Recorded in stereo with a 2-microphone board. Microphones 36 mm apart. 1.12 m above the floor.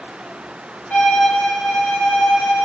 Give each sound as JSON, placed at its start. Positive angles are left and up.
{"t": 0.9, "sound": "a violin", "side_deg": 45, "distance_m": 0.9}